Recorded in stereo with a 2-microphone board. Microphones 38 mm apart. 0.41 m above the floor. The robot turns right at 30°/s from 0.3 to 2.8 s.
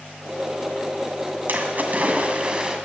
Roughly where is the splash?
Ahead right.